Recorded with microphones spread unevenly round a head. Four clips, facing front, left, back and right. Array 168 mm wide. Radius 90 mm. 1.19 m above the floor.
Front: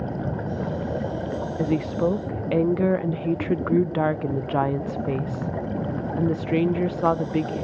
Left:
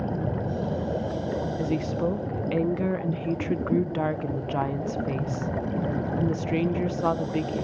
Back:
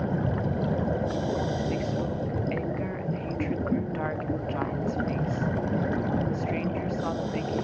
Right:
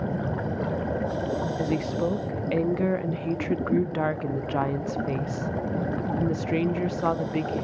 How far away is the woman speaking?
About 0.9 m.